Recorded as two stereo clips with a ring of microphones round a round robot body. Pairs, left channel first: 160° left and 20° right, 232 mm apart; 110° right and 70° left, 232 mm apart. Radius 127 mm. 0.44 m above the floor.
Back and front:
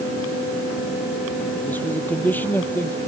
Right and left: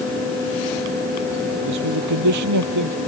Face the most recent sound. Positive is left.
turn(degrees=75)